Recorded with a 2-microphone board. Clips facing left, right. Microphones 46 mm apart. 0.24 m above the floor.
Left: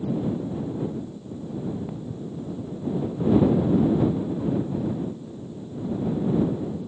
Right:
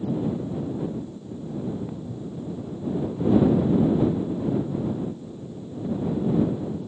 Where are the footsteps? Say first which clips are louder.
Even; 5° left (ahead or behind); by 6.9 s 15° left (ahead or behind).